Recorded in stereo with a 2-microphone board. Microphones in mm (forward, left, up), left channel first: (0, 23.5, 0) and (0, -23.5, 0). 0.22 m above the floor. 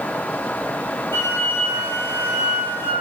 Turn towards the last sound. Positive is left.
turn(degrees=55)  # may be behind; listen again after turning